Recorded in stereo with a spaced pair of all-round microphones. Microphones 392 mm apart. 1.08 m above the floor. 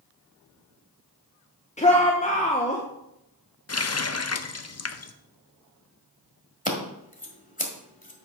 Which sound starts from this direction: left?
A running tap, at 3.7 s.